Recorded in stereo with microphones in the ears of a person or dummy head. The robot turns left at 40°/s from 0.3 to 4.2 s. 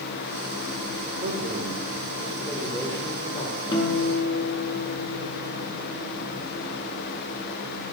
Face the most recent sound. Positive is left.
turn(degrees=15)  # may be behind; listen again after turning